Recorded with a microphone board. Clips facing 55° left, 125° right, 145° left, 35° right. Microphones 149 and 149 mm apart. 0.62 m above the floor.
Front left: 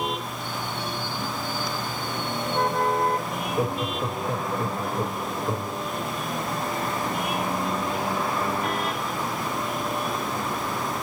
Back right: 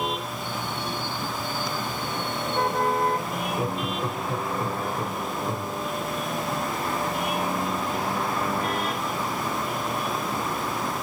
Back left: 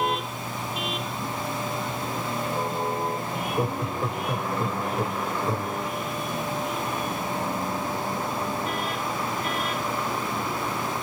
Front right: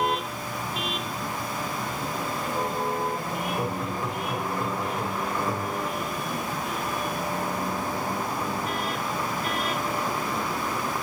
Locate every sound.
3.3 s laughter: 95° left, 2.5 m